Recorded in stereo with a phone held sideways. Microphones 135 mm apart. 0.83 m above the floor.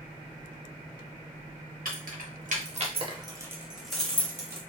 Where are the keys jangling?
75° right (ahead or behind), 0.9 m; by 4.6 s 20° left (ahead or behind), 1.0 m.